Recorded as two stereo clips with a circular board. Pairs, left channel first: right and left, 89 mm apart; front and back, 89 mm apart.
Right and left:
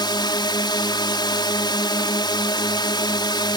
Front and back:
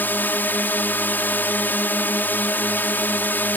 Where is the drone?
65° right.